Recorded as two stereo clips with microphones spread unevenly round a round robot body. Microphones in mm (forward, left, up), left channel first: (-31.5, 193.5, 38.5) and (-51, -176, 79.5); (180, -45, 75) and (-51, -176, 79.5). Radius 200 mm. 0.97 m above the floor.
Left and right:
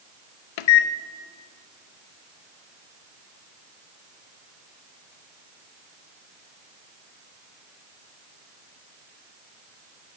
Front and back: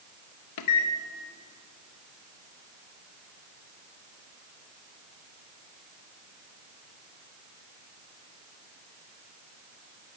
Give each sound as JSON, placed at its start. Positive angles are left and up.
{"t": 0.6, "sound": "a microwave", "azimuth_deg": 60, "distance_m": 0.5}